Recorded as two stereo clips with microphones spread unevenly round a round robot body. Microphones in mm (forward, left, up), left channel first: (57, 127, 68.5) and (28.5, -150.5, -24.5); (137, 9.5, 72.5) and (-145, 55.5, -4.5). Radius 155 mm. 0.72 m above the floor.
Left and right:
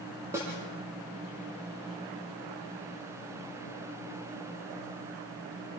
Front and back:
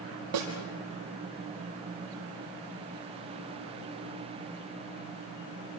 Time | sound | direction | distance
0.3 | a snare drum | straight behind | 6 m